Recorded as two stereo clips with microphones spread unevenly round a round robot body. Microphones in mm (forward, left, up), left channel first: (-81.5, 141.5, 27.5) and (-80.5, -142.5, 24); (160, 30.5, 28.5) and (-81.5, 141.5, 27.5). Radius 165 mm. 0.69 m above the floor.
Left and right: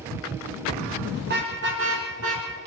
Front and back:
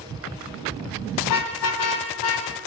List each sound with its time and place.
1.2 s a car horn: 25° right, 3 m; by 2.5 s 40° right, 3.5 m